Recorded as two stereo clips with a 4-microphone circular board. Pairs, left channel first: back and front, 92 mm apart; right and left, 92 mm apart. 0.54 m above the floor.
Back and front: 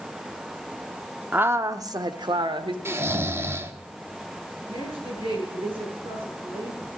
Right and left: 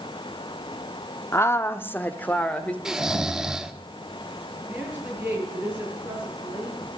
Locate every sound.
1.3 s a woman speaking: 60° right, 0.7 m; by 2.8 s 15° right, 1.5 m
2.9 s snoring: 10° left, 1.1 m
4.7 s a woman speaking: 15° left, 9.5 m